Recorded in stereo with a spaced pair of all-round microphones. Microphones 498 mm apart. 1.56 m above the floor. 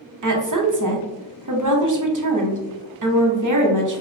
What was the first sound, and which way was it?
A woman speaking, 40° right (ahead or behind).